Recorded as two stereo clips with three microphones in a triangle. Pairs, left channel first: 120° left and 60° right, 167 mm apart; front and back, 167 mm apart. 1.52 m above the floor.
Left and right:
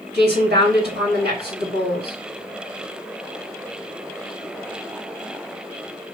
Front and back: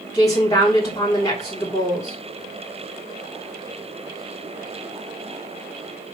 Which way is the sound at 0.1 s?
65° right.